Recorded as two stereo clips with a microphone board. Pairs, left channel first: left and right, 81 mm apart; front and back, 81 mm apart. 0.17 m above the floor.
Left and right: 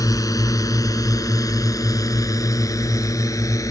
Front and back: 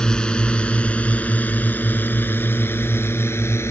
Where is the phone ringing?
No phone ringing in this recording.